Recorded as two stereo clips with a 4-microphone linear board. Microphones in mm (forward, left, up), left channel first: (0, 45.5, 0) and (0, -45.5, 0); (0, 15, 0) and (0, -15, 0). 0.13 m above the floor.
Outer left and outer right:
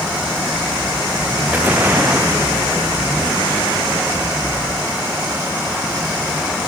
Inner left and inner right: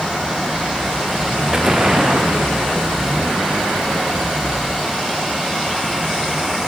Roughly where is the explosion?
Right.